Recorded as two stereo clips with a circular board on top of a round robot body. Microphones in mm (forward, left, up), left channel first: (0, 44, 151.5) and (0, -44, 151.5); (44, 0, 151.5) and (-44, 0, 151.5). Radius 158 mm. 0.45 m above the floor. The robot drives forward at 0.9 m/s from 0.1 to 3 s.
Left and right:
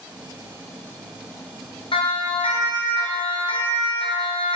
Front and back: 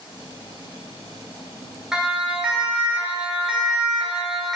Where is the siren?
100° left, 4 m; by 4.6 s 90° left, 2.5 m.